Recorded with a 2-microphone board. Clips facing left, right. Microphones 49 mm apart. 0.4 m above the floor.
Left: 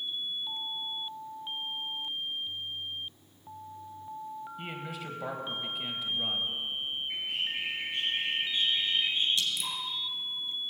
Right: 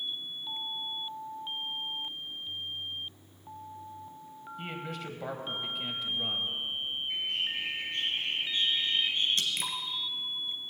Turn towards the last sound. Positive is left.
turn(degrees=-50)  # may be behind; listen again after turning